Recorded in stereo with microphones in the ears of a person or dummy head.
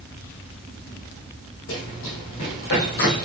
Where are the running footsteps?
65° left (ahead or behind), 4 m; by 3.3 s 50° left (ahead or behind), 2.5 m.